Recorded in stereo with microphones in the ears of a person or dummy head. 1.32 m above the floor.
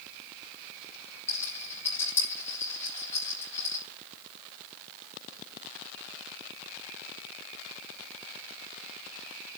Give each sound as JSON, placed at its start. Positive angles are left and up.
{"t": 1.3, "sound": "a rattle", "side_deg": 20, "distance_m": 7.5}